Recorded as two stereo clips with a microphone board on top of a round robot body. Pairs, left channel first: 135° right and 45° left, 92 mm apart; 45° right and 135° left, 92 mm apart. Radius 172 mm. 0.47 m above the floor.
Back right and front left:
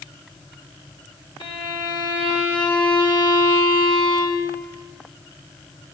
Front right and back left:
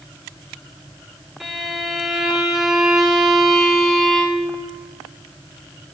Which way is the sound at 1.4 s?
135° right.